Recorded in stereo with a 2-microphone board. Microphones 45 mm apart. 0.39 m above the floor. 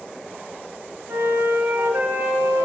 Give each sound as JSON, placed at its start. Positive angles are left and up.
{"t": 1.1, "sound": "a flute", "side_deg": -75, "distance_m": 0.9}